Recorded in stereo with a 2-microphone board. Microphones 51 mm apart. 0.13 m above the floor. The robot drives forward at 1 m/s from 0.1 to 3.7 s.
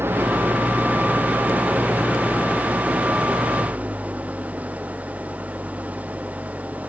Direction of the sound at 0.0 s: 50° right (ahead or behind).